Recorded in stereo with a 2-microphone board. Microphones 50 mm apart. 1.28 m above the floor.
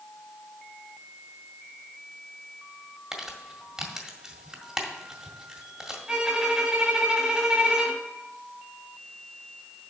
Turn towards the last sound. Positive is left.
turn(degrees=-20)  # may be behind; listen again after turning